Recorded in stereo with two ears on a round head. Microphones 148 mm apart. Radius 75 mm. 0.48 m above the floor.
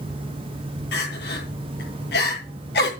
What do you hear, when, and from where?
0.9 s crying: 65° left (ahead or behind), 7.5 m